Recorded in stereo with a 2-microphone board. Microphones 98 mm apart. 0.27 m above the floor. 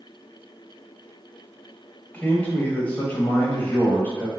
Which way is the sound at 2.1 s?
15° left (ahead or behind).